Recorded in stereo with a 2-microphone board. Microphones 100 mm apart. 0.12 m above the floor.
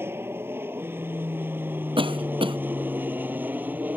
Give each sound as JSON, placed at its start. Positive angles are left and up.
{"t": 0.0, "sound": "an aircraft", "side_deg": -25}
{"t": 2.0, "sound": "a cough", "side_deg": -65}